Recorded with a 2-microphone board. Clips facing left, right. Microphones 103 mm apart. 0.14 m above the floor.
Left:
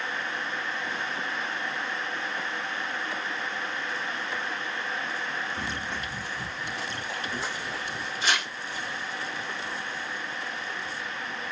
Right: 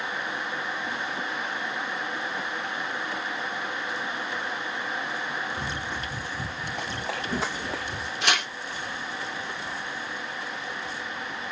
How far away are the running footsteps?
About 1.9 m.